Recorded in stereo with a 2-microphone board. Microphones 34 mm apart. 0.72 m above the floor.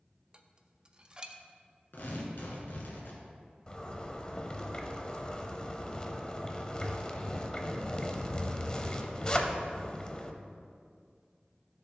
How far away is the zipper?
About 0.7 m.